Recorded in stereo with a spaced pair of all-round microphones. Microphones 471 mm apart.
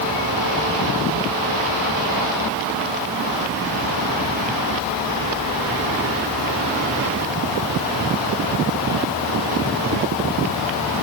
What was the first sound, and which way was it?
Only background noise.